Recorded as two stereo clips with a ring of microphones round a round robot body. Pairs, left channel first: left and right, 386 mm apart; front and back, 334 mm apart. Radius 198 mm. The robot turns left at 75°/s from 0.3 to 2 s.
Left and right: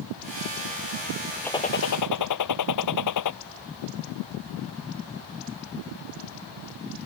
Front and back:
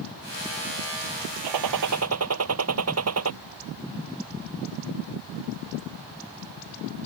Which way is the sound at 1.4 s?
175° left.